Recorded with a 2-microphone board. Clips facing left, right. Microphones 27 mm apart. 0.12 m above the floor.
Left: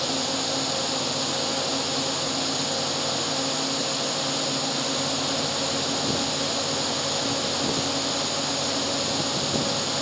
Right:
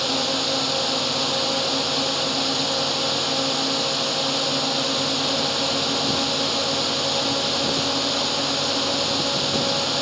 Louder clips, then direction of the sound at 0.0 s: Right 4 dB; 25° right (ahead or behind).